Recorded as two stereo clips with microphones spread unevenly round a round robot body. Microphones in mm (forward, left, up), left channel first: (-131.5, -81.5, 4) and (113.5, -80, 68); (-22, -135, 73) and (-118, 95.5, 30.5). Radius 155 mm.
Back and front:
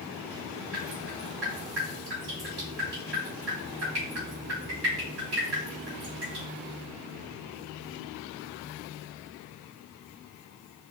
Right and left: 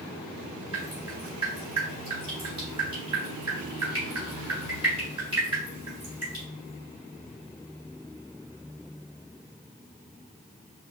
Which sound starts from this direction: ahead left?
Dripping, at 0.7 s.